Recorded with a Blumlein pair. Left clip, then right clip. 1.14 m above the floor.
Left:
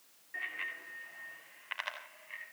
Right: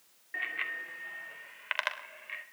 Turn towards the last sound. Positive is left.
turn(degrees=-50)